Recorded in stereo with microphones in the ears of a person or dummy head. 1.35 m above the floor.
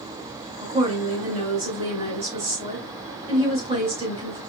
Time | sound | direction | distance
0.6 | a woman speaking | 30° right (ahead or behind) | 2.5 m